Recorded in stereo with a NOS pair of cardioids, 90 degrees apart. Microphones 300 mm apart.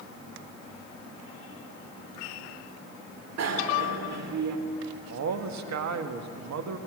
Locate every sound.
3.4 s a bicycle bell: 60° right, 2.5 m
5.1 s a man speaking: 65° right, 1.8 m